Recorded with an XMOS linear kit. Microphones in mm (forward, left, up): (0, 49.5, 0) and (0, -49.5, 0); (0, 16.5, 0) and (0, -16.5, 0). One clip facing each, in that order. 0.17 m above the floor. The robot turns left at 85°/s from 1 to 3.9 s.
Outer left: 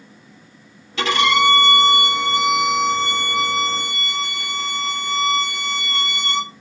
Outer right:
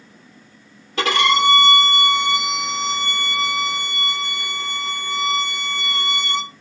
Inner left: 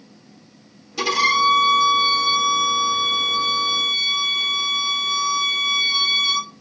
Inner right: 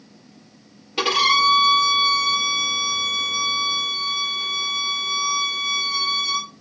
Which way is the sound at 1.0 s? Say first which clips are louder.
Even, even; 50° right.